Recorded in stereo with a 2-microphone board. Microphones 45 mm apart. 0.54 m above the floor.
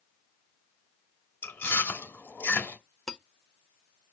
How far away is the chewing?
About 1.5 m.